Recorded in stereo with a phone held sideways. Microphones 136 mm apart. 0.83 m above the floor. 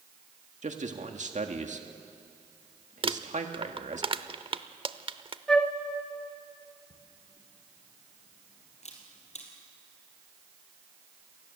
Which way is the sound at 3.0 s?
40° right (ahead or behind).